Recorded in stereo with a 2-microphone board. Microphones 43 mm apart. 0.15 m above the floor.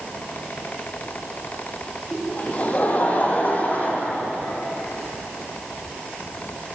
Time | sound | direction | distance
2.1 | laughter | 35° left (ahead or behind) | 5 m